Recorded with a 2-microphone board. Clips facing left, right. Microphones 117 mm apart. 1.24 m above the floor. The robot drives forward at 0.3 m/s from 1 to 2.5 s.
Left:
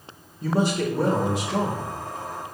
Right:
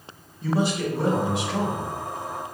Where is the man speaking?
35° left (ahead or behind), 0.8 m; by 1.9 s 30° left (ahead or behind), 1.0 m.